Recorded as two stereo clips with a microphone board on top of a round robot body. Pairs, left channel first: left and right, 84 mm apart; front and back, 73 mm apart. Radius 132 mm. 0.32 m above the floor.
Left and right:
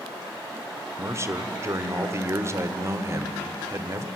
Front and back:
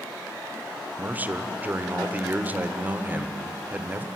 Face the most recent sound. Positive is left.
turn(degrees=-125)